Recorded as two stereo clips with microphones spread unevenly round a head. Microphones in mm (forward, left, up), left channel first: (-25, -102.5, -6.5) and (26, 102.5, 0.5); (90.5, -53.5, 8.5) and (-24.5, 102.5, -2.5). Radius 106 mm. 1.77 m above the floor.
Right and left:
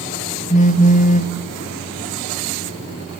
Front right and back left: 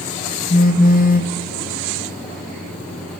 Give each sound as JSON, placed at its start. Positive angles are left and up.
{"t": 0.5, "sound": "a phone buzzing", "azimuth_deg": -60, "distance_m": 0.9}